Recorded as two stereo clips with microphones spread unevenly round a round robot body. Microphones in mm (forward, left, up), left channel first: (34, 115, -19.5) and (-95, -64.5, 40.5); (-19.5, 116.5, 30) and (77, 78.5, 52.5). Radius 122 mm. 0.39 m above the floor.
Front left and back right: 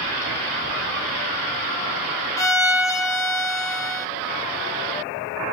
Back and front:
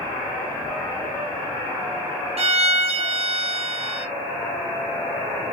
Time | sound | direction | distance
2.4 | a violin | straight ahead | 0.7 m